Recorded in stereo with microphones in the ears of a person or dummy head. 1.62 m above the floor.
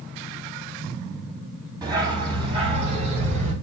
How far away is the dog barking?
About 3 m.